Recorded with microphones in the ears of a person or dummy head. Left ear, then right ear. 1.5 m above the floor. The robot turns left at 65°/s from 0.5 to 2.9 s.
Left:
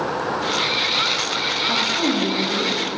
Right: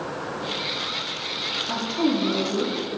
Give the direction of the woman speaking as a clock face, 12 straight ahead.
7 o'clock.